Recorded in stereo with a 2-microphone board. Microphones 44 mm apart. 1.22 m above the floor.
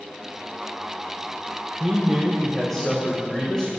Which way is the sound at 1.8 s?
10° right (ahead or behind).